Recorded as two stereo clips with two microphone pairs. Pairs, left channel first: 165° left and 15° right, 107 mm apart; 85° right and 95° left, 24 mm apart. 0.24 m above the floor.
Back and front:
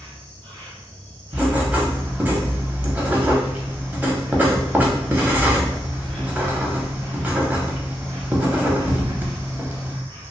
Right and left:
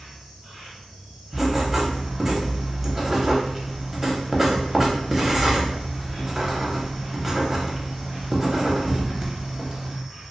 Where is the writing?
30° left, 0.6 m.